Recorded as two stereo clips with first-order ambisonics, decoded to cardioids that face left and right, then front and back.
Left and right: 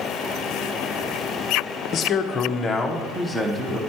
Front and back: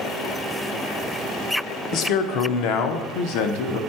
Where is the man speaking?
40° left, 0.8 m; by 3.8 s 15° right, 1.2 m.